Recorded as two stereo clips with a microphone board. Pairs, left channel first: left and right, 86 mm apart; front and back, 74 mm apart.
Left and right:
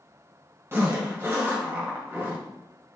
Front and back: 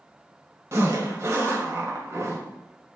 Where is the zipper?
140° right, 1.7 m.